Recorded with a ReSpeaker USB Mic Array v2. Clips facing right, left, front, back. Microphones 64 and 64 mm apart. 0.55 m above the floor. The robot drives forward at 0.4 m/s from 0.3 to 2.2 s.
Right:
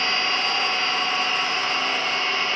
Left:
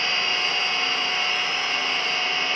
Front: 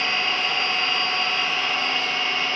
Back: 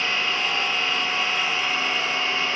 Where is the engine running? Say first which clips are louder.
Right 2 dB, front 1 dB; 95° right, 3.5 m; by 2.6 s 105° right, 3.5 m.